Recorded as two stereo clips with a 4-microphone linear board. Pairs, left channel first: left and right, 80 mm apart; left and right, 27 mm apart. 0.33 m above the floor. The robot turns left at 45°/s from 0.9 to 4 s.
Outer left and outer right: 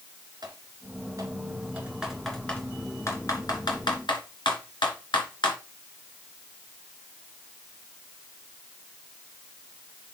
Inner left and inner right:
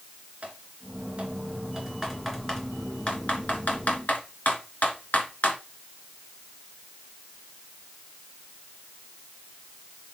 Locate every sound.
0.4 s typing on a keyboard: 55° right (ahead or behind), 3 m; by 5.6 s 75° left (ahead or behind), 3 m